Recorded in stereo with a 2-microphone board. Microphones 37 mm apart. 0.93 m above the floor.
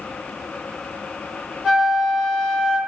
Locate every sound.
1.6 s a flute: 5° right (ahead or behind), 1.3 m